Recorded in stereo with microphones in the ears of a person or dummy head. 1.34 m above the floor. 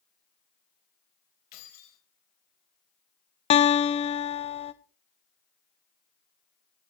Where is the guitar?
35° left (ahead or behind), 0.6 m.